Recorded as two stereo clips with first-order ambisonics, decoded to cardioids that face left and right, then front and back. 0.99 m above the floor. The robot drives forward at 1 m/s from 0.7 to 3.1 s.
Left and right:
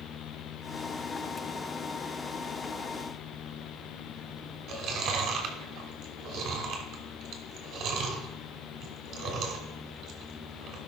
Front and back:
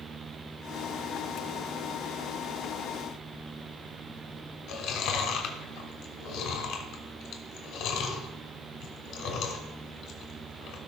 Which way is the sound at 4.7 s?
40° right.